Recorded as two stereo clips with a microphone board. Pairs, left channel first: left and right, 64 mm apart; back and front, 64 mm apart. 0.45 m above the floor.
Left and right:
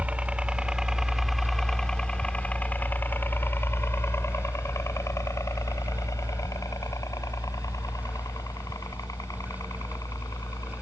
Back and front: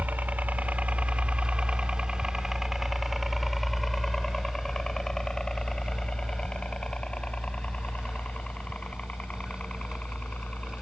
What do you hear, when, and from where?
0.0 s a helicopter: 35° right; by 10.8 s 110° left